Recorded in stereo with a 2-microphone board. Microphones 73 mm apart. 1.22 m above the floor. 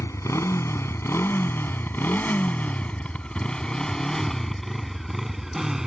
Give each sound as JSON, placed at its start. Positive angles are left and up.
{"t": 0.0, "sound": "a motorcycle", "side_deg": 45}